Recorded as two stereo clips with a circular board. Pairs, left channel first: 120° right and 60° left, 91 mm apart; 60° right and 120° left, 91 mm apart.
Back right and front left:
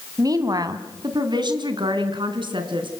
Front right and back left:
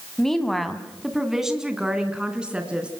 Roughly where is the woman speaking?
Ahead left.